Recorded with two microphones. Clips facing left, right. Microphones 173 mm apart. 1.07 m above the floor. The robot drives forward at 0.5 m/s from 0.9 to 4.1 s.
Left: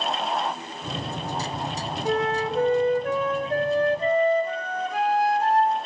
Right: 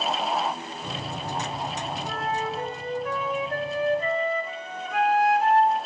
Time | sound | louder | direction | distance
2.0 | a flute | left 8 dB | 75° left (ahead or behind) | 0.9 m